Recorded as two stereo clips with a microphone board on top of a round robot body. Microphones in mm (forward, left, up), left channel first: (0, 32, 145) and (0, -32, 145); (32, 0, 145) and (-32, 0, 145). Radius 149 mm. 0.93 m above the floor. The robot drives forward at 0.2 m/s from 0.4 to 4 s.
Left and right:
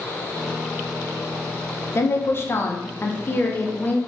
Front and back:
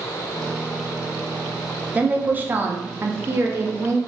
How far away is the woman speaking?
About 0.9 m.